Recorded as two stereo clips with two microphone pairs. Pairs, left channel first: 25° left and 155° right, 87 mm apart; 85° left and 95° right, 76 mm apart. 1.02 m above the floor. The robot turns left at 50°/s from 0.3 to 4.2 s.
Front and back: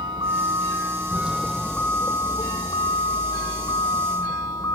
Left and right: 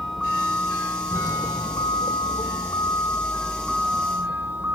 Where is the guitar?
No guitar in this recording.